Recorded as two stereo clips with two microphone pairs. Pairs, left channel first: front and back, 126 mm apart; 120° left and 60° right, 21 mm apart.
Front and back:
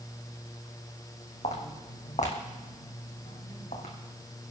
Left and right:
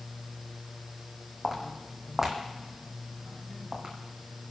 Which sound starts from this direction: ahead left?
Footsteps, at 1.4 s.